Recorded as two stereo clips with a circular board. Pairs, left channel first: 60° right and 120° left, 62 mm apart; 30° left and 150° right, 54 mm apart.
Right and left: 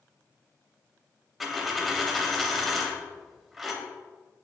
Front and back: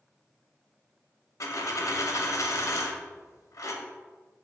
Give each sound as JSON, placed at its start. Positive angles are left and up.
{"t": 1.4, "sound": "a dropped coin", "azimuth_deg": 30, "distance_m": 0.6}